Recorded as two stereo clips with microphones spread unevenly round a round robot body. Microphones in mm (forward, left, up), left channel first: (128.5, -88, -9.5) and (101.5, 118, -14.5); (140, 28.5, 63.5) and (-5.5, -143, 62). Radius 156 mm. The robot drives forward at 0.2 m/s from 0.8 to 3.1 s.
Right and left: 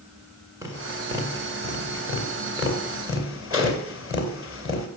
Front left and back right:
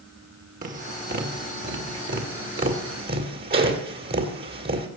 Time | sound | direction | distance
0.6 | tapping | 175° left | 1.8 m